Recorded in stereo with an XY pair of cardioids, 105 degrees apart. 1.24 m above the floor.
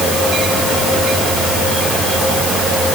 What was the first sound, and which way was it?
Only background noise.